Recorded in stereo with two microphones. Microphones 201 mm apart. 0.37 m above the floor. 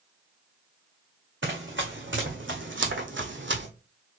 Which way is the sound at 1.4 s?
75° right (ahead or behind).